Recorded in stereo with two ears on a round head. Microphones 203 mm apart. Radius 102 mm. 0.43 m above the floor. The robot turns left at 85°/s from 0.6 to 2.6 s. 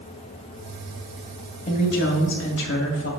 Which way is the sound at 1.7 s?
145° left.